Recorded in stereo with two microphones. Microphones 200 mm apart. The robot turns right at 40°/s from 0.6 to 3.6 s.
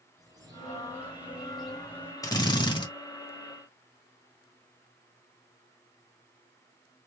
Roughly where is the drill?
Centre.